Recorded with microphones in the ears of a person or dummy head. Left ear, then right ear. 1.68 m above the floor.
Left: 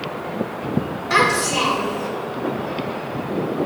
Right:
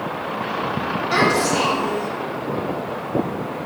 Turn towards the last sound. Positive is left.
turn(degrees=50)  # may be behind; listen again after turning